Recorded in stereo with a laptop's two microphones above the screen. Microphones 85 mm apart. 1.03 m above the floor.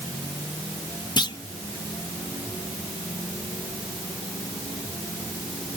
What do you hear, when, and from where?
1.2 s a clunk: 55° left (ahead or behind)